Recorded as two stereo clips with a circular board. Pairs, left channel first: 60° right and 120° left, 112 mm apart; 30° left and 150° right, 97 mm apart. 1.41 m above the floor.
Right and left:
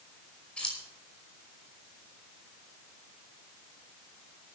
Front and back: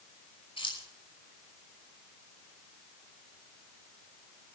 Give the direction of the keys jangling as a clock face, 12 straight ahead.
11 o'clock.